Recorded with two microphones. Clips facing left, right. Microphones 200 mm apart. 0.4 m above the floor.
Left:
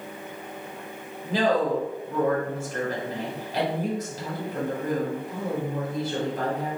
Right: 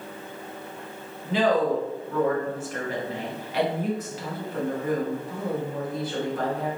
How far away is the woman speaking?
About 1.6 m.